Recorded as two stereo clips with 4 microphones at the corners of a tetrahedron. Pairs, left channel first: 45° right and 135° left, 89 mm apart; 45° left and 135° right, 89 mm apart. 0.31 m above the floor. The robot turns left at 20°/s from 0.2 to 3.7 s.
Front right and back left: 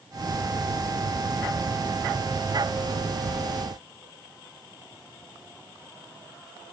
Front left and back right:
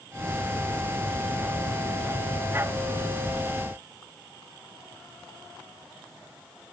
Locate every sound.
Only background noise.